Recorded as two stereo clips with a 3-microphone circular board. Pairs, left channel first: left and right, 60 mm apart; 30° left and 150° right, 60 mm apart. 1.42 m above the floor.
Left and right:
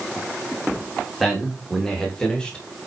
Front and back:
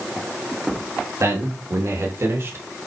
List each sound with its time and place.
1.2 s a man speaking: straight behind, 3 m; by 2.7 s 160° left, 2.0 m